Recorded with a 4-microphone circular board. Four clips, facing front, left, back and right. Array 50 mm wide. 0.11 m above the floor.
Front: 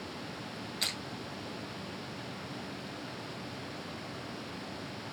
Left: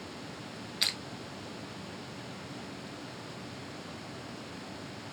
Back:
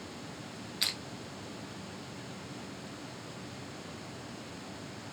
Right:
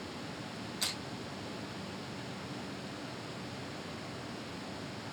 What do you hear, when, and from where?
0.8 s crushing: 105° left, 0.8 m